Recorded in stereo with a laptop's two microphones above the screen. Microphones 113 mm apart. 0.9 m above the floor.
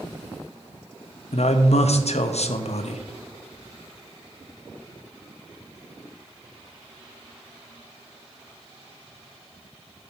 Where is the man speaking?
70° left (ahead or behind), 0.6 m.